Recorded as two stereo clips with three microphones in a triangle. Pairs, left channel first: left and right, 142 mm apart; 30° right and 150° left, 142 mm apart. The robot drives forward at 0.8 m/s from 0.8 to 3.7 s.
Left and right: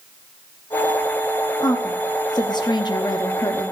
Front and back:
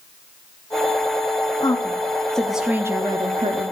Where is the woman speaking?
25° left, 1.3 m; by 3.7 s 150° left, 1.1 m.